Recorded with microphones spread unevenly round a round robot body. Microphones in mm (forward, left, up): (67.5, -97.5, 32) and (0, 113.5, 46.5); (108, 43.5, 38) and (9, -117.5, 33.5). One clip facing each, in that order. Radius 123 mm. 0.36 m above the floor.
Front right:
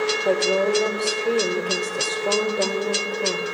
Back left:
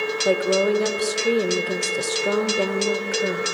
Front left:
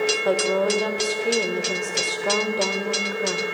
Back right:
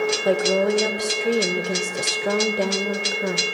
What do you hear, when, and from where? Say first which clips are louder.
0.2 s a woman speaking: back left 2 dB, back right 2 dB; straight behind, 1.3 m